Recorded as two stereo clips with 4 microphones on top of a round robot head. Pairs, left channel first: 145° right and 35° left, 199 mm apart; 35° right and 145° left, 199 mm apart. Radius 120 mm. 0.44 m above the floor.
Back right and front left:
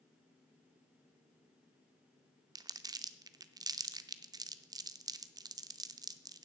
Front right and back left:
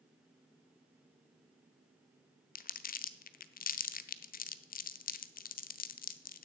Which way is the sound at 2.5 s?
30° right.